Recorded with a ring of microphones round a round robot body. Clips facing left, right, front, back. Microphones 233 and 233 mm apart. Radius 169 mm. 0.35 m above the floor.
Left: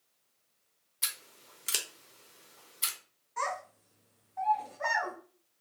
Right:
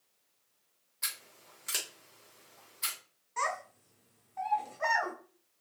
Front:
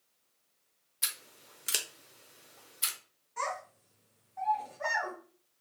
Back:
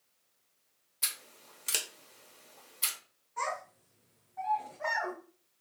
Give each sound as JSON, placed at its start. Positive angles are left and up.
{"t": 1.0, "sound": "scissors", "azimuth_deg": 70, "distance_m": 0.8}
{"t": 3.4, "sound": "a child speaking", "azimuth_deg": -45, "distance_m": 1.3}